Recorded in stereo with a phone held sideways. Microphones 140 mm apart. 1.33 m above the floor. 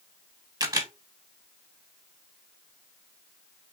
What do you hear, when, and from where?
0.6 s a camera shutter: 30° right (ahead or behind), 1.1 m